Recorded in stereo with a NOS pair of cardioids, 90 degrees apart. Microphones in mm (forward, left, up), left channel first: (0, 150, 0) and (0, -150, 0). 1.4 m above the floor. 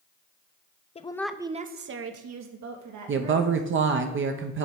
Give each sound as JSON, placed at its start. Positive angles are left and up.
{"t": 0.9, "sound": "a woman speaking", "azimuth_deg": 20, "distance_m": 0.6}
{"t": 3.1, "sound": "a woman speaking", "azimuth_deg": -45, "distance_m": 0.7}